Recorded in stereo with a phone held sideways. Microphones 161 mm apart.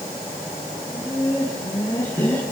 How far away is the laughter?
About 9.5 m.